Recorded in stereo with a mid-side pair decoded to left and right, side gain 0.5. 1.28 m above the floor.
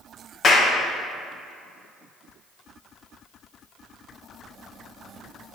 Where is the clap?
50° left, 1.1 m.